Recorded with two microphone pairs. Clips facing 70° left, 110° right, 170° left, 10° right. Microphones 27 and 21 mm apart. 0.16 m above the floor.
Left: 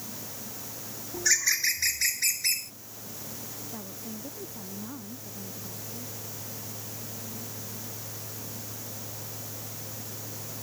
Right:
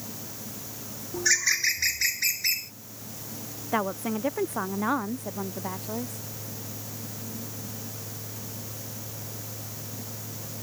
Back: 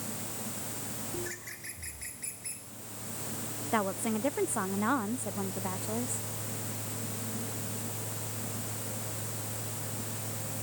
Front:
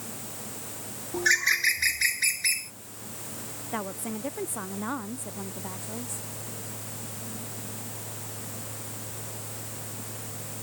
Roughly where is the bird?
Ahead right.